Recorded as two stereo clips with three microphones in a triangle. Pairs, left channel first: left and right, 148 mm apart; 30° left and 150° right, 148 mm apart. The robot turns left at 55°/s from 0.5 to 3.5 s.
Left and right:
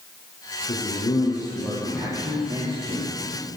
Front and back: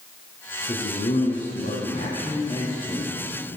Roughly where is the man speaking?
Ahead left.